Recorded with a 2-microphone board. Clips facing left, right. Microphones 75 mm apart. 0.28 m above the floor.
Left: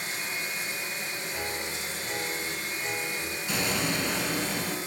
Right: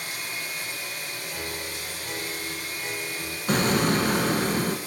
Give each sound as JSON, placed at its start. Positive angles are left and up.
{"t": 0.0, "sound": "running water", "side_deg": 25, "distance_m": 1.2}
{"t": 1.3, "sound": "a piano", "side_deg": 0, "distance_m": 3.5}
{"t": 3.5, "sound": "an explosion", "side_deg": -50, "distance_m": 0.7}